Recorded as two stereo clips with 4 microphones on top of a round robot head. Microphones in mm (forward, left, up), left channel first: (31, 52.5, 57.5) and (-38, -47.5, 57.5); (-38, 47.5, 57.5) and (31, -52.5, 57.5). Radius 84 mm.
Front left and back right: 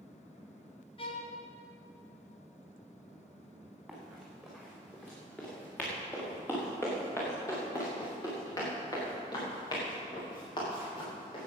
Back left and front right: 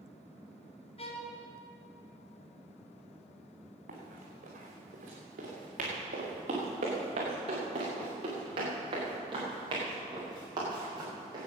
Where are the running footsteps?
35° right, 5 m; by 11.5 s 5° left, 8 m.